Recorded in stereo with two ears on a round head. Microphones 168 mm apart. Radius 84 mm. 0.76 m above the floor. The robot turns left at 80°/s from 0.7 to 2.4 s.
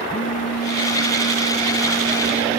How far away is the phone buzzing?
About 0.7 m.